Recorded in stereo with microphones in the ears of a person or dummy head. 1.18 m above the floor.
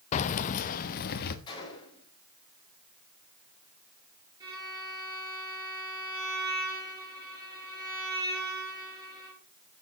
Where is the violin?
15° right (ahead or behind), 8.5 m.